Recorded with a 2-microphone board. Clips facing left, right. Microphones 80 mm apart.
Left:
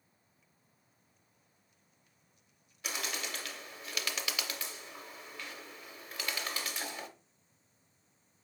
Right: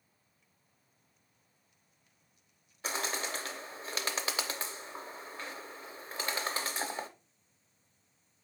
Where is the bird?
35° right (ahead or behind), 0.6 m.